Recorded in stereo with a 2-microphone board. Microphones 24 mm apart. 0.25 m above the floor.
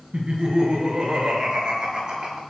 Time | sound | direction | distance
0.1 | laughter | 35° right (ahead or behind) | 4.5 m